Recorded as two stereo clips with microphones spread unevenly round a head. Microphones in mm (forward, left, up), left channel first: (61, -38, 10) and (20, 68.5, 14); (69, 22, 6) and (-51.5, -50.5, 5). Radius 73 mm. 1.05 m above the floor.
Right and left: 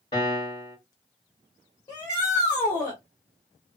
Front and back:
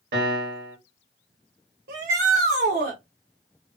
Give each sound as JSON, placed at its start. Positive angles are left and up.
{"t": 0.1, "sound": "a piano", "azimuth_deg": -130, "distance_m": 1.4}
{"t": 1.9, "sound": "a shout", "azimuth_deg": -135, "distance_m": 1.0}